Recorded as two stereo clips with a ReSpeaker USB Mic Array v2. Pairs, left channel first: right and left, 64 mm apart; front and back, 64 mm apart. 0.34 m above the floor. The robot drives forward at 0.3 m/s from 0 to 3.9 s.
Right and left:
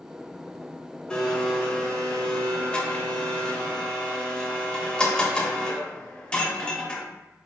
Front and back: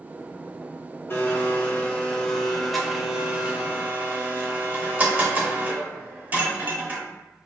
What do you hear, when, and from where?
1.1 s a blender: 20° right, 0.8 m; by 7.0 s 155° right, 0.7 m